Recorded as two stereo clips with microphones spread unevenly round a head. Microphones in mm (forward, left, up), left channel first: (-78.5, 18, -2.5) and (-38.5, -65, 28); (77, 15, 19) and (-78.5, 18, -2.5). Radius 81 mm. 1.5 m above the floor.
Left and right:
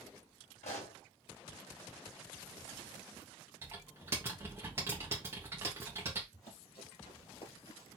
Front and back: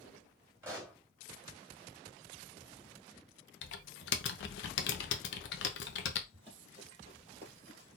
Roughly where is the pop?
Left.